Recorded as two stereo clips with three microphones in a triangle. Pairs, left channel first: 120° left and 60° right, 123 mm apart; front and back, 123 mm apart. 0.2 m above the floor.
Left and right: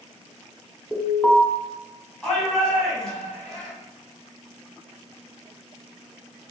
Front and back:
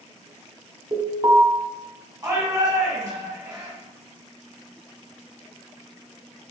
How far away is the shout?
About 1.9 m.